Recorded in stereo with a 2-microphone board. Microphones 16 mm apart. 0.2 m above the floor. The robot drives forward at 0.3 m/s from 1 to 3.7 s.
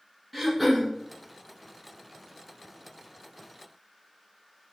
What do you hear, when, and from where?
0.3 s throat clearing: 5° left (ahead or behind), 1.3 m